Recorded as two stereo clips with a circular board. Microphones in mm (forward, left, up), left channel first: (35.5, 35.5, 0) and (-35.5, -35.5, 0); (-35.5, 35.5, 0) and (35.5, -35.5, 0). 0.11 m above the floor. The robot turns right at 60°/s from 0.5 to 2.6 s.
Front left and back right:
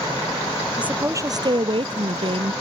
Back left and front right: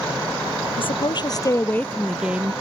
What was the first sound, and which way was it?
A woman speaking, 145° left.